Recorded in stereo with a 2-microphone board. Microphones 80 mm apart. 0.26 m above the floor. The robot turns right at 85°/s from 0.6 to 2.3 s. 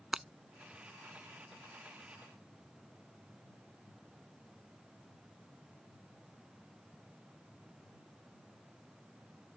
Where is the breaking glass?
10° right (ahead or behind).